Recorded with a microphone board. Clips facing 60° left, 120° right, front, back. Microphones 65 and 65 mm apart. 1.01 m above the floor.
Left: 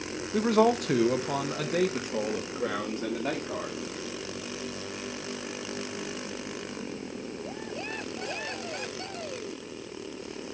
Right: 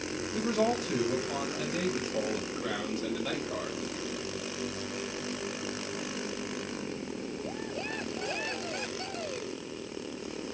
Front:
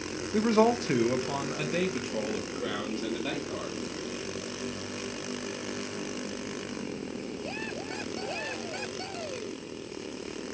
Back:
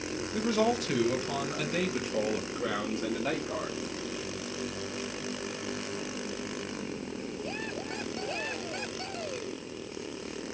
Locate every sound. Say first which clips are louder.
0.3 s a man speaking: left 6 dB, front 5 dB; 40° left, 0.9 m; by 3.8 s 110° left, 2 m